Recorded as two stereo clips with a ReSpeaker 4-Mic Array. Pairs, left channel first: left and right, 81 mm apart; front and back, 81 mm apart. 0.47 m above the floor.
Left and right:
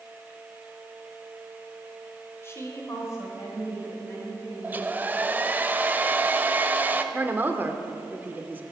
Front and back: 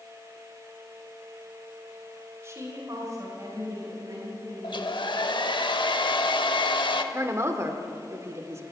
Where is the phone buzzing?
I don't hear a phone buzzing.